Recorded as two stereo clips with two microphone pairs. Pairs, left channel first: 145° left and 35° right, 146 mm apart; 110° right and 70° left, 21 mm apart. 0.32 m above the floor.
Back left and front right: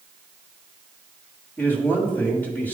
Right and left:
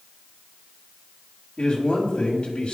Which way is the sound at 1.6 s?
140° right.